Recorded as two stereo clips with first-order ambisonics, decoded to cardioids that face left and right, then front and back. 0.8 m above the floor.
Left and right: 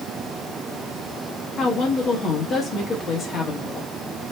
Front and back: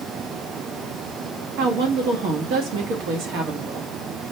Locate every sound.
1.6 s a woman speaking: 160° left, 1.6 m